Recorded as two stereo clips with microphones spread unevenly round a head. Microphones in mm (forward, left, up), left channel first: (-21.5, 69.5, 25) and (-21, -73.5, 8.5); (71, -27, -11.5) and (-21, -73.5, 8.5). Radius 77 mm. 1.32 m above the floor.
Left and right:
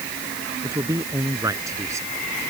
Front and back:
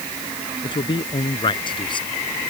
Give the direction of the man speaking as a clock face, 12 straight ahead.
1 o'clock.